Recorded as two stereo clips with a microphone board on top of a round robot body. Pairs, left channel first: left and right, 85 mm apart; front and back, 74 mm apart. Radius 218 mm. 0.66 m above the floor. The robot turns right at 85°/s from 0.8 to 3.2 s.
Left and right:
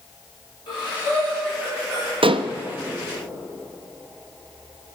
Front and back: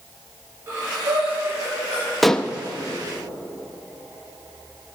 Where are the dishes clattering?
90° right, 0.7 m; by 2.5 s 60° right, 0.7 m.